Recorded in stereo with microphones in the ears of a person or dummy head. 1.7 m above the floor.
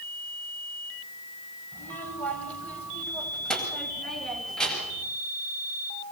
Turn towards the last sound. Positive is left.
turn(degrees=0)  # may be behind; listen again after turning